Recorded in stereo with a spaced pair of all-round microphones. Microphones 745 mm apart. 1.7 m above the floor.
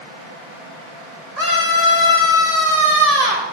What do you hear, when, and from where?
1.4 s a scream: 50° right (ahead or behind), 5 m